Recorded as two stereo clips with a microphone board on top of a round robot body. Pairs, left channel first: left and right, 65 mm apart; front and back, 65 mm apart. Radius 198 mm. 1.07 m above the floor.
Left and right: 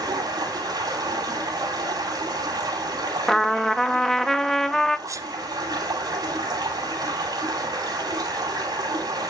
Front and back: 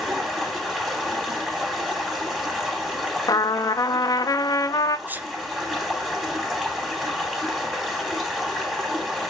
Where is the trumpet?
5° left, 0.7 m.